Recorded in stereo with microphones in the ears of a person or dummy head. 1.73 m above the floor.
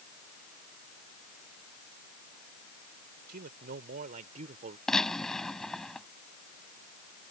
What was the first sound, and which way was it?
A man speaking, 55° right (ahead or behind).